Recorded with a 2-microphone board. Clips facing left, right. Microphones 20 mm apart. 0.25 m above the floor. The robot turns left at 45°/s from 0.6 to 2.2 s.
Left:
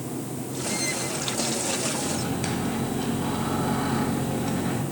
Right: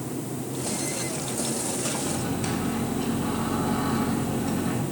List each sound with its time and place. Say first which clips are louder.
2.0 s a microwave: even; 25° left (ahead or behind), 1.5 m